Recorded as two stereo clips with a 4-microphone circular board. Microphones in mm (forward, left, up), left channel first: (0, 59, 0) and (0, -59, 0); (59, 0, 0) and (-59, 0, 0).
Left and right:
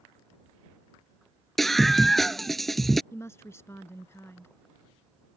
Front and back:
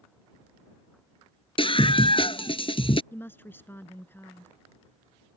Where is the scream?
5° left.